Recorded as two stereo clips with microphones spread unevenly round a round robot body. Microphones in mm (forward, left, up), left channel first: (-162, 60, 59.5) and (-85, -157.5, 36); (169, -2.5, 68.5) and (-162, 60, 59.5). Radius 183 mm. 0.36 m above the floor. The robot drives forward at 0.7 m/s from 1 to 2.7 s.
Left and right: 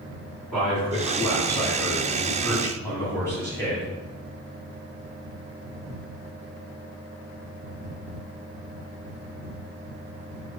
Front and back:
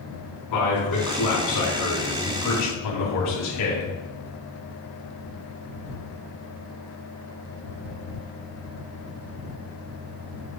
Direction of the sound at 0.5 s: 20° left.